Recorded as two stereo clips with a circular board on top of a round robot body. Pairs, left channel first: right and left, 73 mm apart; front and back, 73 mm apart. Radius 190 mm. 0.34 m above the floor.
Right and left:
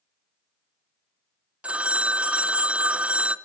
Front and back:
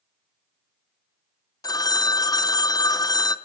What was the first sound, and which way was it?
A phone ringing, 20° left.